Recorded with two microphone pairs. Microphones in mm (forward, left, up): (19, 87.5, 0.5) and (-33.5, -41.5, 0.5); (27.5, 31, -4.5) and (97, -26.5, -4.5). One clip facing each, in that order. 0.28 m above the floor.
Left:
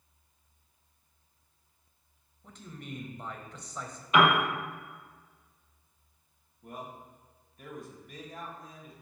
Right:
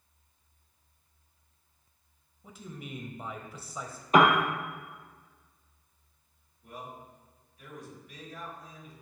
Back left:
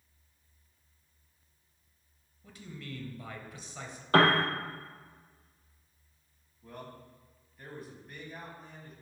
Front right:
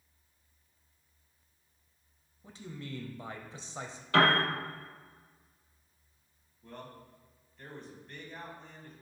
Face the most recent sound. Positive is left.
turn(degrees=55)